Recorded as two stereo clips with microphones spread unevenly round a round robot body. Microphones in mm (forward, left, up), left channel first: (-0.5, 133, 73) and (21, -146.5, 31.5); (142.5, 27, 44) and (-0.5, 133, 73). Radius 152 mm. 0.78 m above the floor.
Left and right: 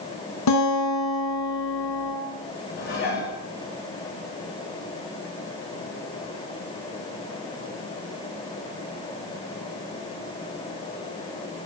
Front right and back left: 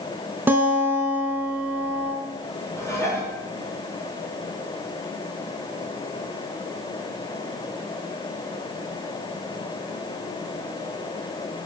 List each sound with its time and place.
0.5 s a guitar: 65° left, 3.5 m
2.8 s dishes clattering: 40° left, 7.5 m